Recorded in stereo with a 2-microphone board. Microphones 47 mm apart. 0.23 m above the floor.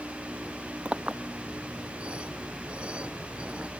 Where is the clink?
25° right (ahead or behind).